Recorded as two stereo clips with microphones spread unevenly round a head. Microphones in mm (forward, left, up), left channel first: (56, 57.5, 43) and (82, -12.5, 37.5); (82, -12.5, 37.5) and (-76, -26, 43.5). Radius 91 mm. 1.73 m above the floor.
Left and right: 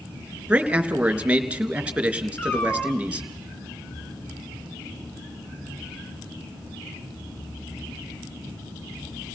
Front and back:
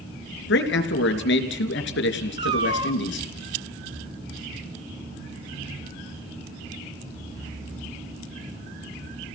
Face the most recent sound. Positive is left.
turn(degrees=170)